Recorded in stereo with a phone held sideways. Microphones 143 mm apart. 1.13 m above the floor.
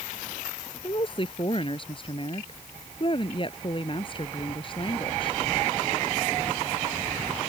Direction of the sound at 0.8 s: 35° left (ahead or behind).